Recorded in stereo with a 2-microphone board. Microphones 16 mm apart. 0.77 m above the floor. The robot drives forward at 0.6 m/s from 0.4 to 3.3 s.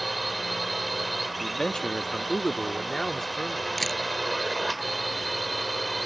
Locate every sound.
0.0 s a drone: centre (ahead or behind); by 6.1 s 5° left (ahead or behind)
1.4 s a man speaking: 60° left (ahead or behind); by 3.7 s 25° left (ahead or behind)
3.8 s a camera shutter: 15° left (ahead or behind)